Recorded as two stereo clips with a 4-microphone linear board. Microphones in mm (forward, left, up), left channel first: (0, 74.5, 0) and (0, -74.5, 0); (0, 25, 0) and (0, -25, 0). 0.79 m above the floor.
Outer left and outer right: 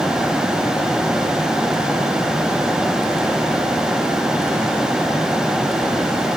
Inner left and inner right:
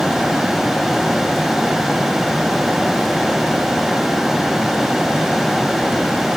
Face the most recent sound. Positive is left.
No sound to turn to.